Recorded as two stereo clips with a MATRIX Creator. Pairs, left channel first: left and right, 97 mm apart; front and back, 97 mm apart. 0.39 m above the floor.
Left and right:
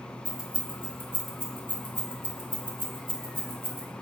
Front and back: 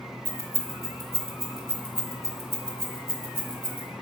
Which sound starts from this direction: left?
Keys jangling, at 0.2 s.